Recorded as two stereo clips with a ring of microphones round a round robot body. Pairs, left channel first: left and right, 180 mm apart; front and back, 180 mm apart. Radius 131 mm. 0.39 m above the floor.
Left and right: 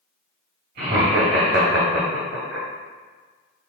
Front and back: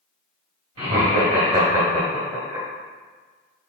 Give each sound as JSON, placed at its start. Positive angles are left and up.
{"t": 0.8, "sound": "laughter", "azimuth_deg": -130, "distance_m": 1.9}